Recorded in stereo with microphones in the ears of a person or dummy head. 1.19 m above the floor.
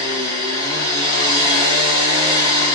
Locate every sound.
0.0 s a machine running: 25° right (ahead or behind), 1.4 m